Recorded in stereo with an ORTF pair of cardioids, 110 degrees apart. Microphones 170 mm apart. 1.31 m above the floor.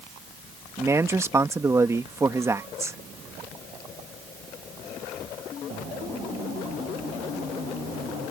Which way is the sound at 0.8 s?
15° right.